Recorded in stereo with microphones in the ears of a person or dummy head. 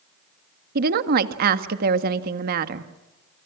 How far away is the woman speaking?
About 1.7 m.